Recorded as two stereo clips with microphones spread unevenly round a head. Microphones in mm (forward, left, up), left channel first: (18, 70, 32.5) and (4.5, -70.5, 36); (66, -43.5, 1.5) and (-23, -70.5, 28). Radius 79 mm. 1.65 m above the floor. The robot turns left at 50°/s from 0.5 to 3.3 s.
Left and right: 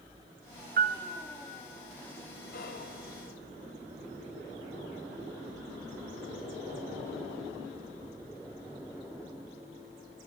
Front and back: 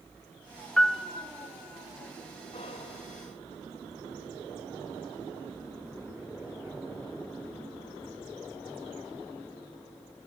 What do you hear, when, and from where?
0.8 s a piano: 65° right, 1.1 m; by 1.0 s 80° right, 1.1 m
2.5 s whispering: 70° left, 3.5 m; by 2.9 s 50° left, 3.5 m